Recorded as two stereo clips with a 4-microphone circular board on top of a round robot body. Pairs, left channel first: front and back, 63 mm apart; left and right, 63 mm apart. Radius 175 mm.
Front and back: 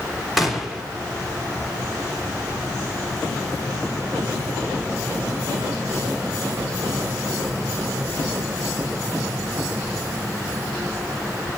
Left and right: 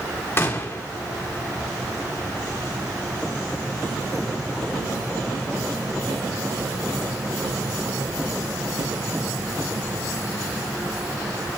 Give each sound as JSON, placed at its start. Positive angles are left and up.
{"t": 0.4, "sound": "a gunshot", "azimuth_deg": 95, "distance_m": 1.7}